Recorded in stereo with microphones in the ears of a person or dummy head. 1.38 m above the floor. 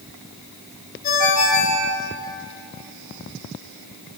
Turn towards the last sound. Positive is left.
turn(degrees=40)  # may be behind; listen again after turning